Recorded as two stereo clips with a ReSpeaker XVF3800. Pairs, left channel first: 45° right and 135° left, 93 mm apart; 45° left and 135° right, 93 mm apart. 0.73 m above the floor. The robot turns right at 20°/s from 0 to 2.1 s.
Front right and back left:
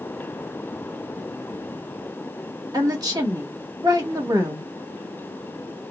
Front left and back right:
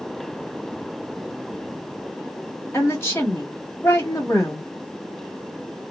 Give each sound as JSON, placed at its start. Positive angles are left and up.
{"t": 2.7, "sound": "a woman speaking", "azimuth_deg": 100, "distance_m": 1.2}